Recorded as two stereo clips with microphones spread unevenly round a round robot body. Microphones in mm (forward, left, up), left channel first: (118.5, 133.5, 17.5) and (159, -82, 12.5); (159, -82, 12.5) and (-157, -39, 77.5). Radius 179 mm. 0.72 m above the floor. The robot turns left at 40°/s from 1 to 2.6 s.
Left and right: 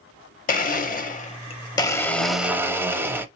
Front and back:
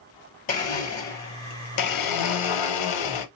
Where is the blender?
65° left, 0.7 m; by 3.3 s straight ahead, 0.7 m.